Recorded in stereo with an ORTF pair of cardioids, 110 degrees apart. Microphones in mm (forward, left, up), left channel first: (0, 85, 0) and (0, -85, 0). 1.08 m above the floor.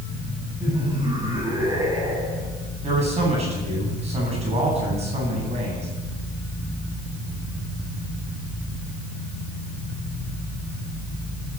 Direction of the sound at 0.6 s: 25° right.